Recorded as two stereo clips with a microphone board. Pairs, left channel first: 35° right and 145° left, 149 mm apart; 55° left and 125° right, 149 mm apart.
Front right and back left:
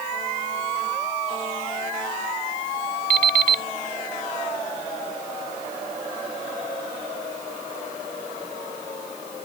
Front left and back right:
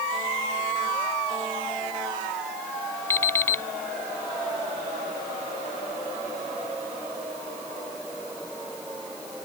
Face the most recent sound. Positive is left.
turn(degrees=130)